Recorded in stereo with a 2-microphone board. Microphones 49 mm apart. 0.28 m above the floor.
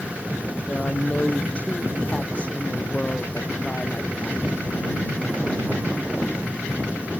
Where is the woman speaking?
30° left (ahead or behind); by 4.5 s 20° left (ahead or behind).